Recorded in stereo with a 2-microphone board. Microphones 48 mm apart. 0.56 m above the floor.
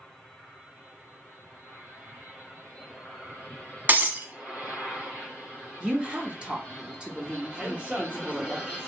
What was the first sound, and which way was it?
Breaking glass, 40° right (ahead or behind).